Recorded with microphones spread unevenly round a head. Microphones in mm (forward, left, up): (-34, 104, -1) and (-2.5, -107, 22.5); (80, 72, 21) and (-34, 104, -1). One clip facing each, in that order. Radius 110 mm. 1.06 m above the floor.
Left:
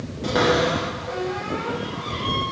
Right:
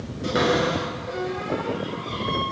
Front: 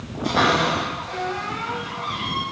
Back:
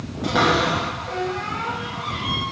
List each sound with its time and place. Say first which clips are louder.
0.2 s a cupboard door: left 2 dB, even; 165° right, 5 m